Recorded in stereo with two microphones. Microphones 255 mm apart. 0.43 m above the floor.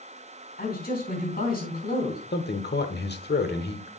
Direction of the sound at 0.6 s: 35° left (ahead or behind).